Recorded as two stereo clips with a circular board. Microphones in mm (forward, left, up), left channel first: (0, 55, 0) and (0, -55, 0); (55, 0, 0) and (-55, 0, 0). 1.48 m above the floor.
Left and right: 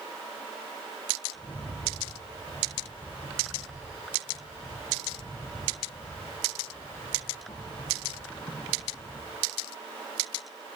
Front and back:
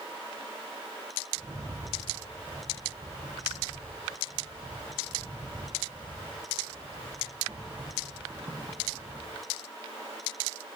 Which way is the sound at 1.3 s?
125° left.